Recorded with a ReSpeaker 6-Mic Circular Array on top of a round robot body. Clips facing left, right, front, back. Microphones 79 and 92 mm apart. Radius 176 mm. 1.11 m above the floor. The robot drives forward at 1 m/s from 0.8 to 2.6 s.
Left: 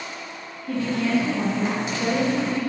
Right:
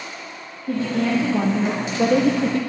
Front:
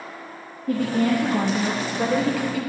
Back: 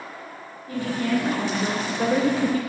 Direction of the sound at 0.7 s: 30° right.